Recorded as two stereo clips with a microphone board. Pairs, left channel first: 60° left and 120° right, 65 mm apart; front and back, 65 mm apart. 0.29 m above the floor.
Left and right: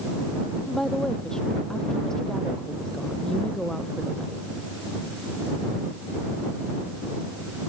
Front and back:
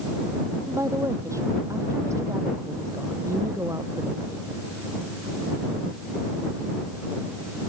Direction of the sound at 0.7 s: 140° left.